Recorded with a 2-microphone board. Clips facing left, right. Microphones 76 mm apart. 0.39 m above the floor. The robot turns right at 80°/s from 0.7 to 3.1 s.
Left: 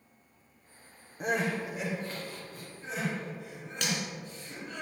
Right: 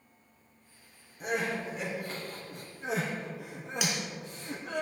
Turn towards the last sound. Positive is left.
turn(degrees=-10)  # may be behind; listen again after turning